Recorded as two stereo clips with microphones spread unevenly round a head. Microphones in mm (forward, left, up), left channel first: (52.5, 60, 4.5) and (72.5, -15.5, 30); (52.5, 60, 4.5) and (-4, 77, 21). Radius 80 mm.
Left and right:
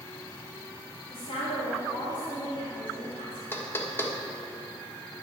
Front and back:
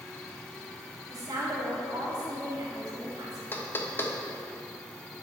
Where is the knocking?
40° left, 1.3 m.